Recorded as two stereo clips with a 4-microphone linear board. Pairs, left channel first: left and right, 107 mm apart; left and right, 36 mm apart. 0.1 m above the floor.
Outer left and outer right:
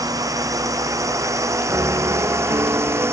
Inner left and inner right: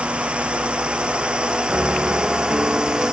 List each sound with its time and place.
0.0 s a drone: 35° right (ahead or behind); by 3.1 s 25° right (ahead or behind)
1.7 s a piano: 30° right (ahead or behind)